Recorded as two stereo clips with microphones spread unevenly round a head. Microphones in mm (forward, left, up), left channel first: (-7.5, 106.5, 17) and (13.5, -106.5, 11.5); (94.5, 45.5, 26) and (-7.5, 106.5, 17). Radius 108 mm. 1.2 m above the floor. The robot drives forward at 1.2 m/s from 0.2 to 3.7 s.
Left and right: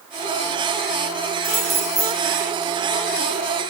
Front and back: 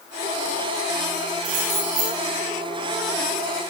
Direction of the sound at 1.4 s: 170° right.